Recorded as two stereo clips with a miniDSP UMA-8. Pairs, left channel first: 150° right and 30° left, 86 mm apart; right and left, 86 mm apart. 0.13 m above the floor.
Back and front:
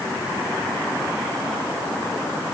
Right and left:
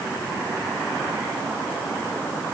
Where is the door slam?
I don't hear a door slam.